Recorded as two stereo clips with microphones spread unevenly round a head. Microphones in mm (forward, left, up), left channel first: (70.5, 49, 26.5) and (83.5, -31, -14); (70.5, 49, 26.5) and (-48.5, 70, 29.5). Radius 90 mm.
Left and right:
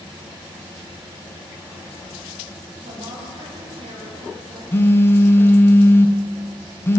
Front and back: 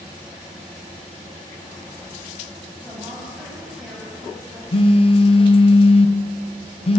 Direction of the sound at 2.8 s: 105° right.